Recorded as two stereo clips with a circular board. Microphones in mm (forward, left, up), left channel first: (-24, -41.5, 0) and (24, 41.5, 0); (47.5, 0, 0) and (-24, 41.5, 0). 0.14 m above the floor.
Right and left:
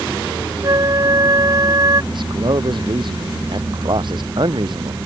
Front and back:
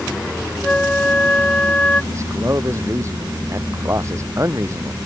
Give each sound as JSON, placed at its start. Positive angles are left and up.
{"t": 0.6, "sound": "a flute", "azimuth_deg": 40}
{"t": 2.1, "sound": "a man speaking", "azimuth_deg": 95}